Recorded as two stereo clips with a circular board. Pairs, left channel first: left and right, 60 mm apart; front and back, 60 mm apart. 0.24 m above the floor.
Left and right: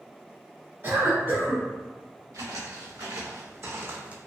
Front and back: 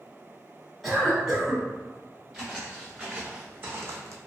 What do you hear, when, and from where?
0.8 s a cough: 90° right, 1.3 m
2.3 s footsteps: 95° right, 1.3 m; by 4.2 s 160° right, 0.5 m